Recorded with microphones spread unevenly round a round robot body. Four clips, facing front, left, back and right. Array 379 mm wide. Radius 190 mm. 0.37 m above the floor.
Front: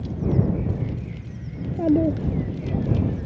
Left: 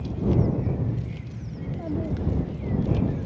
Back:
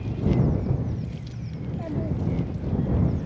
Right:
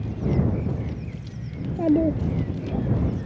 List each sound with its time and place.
1.6 s a child speaking: 40° right; by 2.9 s 50° right